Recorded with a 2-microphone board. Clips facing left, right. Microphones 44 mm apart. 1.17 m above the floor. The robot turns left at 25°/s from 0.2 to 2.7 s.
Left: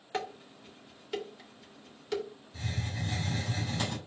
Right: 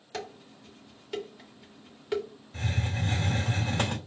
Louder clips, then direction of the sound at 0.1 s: Left 3 dB; 25° left (ahead or behind).